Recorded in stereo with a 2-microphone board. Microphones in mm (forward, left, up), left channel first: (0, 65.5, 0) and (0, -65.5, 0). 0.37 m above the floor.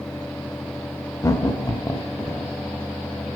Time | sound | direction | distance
1.2 | laughter | 25° left (ahead or behind) | 1.1 m